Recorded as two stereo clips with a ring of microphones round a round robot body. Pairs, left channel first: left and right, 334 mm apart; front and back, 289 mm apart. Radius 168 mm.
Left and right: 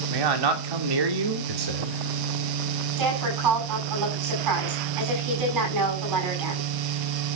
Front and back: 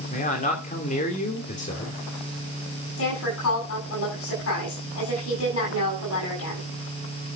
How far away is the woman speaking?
About 9 m.